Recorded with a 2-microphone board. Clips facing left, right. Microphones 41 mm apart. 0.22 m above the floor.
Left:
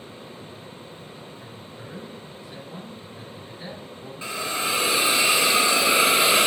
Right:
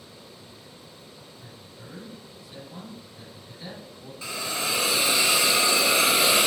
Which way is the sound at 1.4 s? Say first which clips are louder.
Left 5 dB; 35° left (ahead or behind).